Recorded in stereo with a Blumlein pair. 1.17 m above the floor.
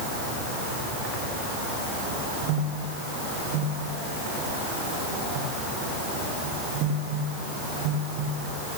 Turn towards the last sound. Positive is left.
No sound to turn to.